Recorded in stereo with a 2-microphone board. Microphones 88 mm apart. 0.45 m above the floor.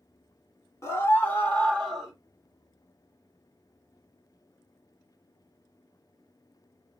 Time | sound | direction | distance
0.8 | a scream | 30° left (ahead or behind) | 1.3 m